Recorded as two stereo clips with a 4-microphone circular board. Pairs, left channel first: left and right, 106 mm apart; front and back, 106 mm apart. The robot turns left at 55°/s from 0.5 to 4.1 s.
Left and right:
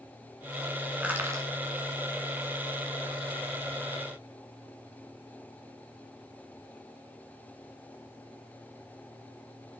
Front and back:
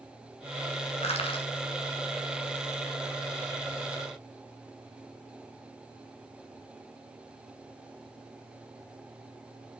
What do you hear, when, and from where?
1.0 s crushing: 10° right, 1.6 m; by 1.5 s 35° right, 1.6 m